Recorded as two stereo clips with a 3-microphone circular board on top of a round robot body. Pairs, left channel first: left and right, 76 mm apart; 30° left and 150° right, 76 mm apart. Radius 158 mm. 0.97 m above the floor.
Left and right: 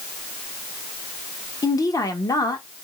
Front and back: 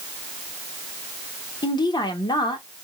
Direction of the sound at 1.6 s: 50° left.